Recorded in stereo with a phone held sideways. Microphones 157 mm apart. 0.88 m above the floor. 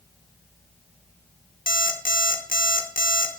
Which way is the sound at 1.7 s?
65° left (ahead or behind).